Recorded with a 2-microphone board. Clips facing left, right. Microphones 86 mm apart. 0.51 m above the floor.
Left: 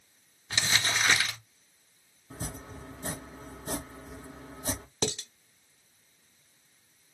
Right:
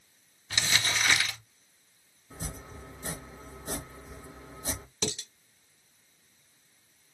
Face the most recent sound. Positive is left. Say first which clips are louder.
# left 3 dB
turn(degrees=45)  # may be behind; listen again after turning